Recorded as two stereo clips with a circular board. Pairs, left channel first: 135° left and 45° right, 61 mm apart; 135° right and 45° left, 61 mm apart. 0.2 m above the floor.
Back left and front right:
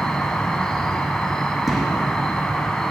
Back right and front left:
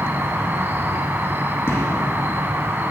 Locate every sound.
0.0 s an insect: 60° left, 0.7 m
1.7 s a gunshot: 130° right, 1.6 m